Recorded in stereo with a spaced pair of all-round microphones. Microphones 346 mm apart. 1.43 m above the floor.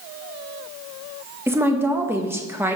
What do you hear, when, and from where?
1.5 s a woman speaking: 5° right (ahead or behind), 1.4 m